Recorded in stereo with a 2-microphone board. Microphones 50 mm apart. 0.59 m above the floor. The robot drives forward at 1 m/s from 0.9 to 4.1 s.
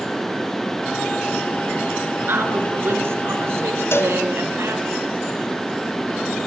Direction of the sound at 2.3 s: 50° right (ahead or behind).